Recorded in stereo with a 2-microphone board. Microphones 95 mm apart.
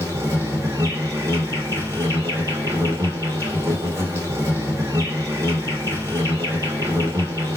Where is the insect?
30° right (ahead or behind), 1.6 m.